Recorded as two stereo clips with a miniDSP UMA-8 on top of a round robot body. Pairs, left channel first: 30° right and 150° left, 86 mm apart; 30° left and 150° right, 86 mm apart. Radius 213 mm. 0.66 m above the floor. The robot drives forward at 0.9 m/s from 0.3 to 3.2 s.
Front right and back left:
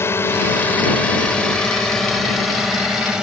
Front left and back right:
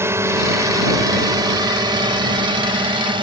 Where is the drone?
90° right; by 3.2 s 125° right.